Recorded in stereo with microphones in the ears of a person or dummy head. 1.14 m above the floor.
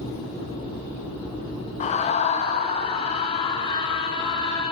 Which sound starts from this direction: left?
A scream, at 1.8 s.